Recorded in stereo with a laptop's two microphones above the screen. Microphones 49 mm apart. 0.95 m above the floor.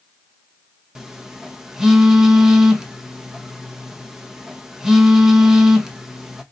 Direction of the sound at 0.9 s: 10° right (ahead or behind).